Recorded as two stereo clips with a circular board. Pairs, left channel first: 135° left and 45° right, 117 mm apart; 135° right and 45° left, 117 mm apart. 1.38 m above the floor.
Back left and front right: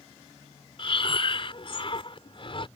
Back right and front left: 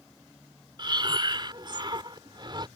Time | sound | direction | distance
0.8 | breathing | 95° left | ?